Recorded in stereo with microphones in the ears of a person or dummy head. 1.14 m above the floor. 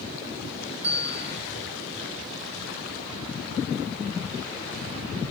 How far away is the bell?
About 1.9 m.